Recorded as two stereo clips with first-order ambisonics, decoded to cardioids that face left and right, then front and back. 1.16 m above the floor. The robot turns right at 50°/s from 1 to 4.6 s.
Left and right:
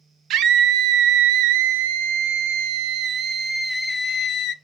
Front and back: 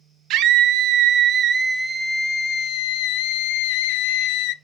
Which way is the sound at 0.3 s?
140° right.